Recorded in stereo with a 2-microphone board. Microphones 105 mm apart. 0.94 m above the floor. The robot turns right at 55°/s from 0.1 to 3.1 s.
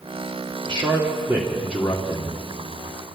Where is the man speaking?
55° right, 2.5 m; by 2.4 s 45° left, 2.5 m.